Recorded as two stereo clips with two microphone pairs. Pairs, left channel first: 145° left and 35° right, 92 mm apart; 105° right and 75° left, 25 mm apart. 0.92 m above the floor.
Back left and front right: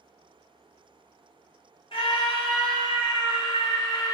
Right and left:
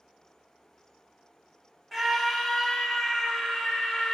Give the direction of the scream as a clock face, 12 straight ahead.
7 o'clock.